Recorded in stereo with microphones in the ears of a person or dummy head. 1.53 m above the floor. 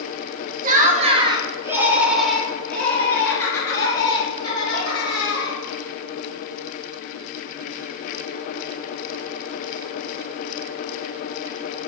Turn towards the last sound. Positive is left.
turn(degrees=25)  # may be behind; listen again after turning